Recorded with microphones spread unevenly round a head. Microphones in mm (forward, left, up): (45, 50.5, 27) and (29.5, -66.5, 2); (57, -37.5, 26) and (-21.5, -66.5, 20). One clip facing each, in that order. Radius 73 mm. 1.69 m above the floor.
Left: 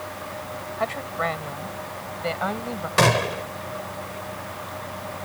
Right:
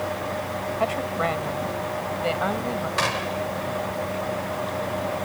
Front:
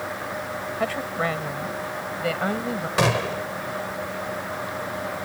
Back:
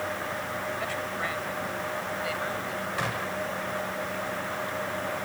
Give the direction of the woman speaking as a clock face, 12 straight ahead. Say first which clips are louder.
Right 1 dB, front 6 dB; 1 o'clock.